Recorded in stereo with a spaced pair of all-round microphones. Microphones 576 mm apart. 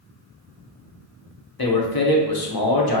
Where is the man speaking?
40° left (ahead or behind), 0.9 m.